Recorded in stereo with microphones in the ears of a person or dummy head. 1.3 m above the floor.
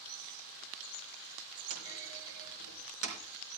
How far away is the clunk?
About 4 m.